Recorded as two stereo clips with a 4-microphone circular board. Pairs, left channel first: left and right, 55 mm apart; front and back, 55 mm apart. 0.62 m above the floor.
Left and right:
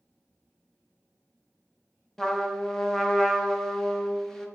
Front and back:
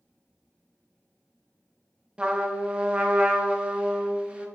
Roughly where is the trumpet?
Behind left.